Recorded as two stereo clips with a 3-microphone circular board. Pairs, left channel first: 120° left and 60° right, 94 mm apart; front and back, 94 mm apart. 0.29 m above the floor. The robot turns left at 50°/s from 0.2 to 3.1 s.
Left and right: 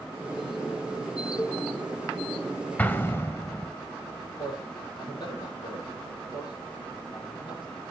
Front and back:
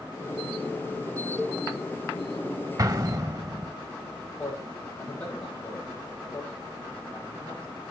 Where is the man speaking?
75° left, 8.5 m.